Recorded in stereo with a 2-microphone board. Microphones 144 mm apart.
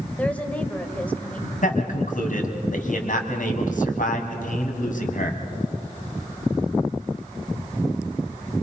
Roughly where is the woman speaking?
Centre.